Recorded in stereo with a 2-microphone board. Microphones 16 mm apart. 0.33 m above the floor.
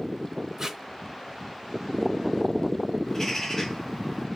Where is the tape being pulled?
35° right (ahead or behind), 0.6 m.